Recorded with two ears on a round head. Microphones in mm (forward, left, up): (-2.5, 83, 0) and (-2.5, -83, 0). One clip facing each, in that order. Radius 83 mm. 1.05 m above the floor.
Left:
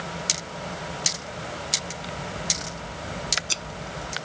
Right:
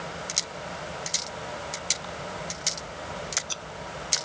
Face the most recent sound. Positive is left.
turn(degrees=25)  # may be behind; listen again after turning